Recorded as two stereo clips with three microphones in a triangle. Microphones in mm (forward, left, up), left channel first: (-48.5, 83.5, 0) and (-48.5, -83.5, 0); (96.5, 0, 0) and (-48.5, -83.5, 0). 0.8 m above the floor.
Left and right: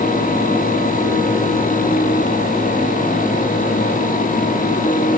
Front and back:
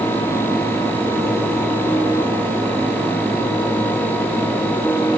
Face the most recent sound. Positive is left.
No sound to turn to.